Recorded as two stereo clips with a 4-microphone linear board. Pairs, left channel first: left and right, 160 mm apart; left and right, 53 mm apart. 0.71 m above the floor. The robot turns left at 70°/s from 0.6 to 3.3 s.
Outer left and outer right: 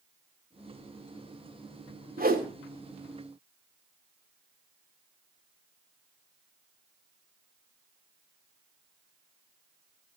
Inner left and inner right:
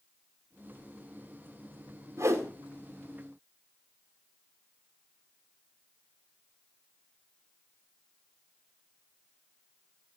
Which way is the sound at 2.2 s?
70° right (ahead or behind).